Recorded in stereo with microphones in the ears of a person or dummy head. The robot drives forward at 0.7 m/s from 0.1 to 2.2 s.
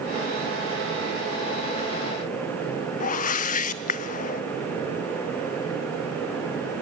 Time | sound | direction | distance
3.0 | a whoosh | 40° left (ahead or behind) | 0.5 m